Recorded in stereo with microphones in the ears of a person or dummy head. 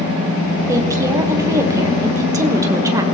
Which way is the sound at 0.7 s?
20° right (ahead or behind).